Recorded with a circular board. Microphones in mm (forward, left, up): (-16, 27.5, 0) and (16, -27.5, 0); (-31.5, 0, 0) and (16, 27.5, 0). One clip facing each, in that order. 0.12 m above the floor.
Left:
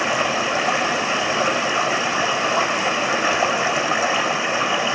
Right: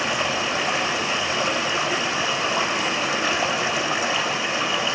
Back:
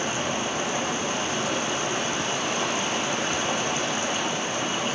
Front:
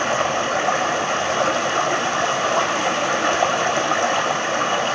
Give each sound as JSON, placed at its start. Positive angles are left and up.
{"t": 0.0, "sound": "running water", "azimuth_deg": 40, "distance_m": 4.5}